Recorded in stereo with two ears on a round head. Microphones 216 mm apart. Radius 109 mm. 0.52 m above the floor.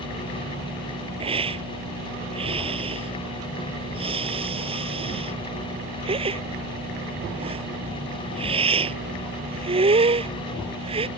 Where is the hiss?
25° right (ahead or behind).